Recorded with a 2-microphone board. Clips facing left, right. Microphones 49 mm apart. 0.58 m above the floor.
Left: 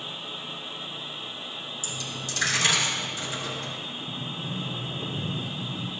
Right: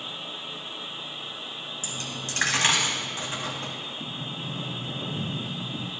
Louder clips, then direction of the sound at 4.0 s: Even; 80° right.